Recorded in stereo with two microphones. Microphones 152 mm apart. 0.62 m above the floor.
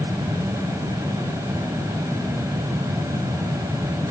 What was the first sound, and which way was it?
Only background noise.